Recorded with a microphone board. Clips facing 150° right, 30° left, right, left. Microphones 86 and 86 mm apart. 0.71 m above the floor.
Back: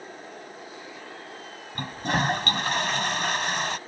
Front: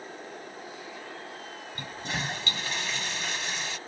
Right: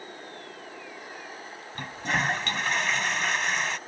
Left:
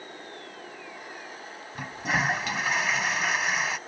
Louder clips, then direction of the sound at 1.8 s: Back 9 dB, left 1 dB; 175° left.